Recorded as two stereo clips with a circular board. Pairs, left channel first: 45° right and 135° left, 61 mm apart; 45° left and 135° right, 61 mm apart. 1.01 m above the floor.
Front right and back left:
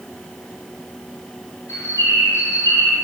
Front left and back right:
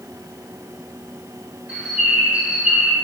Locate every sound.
1.7 s a bird: 65° right, 2 m